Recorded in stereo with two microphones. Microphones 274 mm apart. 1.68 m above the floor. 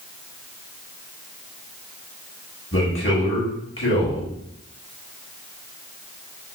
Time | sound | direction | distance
2.7 | a man speaking | 45° left (ahead or behind) | 1.3 m